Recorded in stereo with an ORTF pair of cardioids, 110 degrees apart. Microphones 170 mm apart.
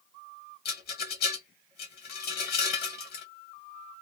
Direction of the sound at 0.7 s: 60° left.